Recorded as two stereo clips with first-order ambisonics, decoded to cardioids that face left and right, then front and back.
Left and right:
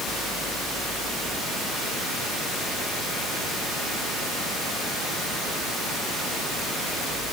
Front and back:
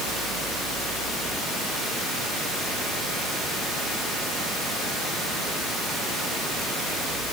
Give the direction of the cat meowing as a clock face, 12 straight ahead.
No cat meowing in this recording.